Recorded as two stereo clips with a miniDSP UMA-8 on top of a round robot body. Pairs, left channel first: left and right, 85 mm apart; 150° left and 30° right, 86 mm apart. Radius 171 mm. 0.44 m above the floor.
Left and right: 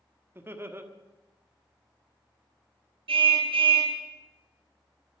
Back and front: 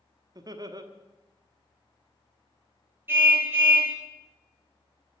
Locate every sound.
0.3 s laughter: 35° right, 1.7 m
3.1 s a car horn: 95° right, 4.5 m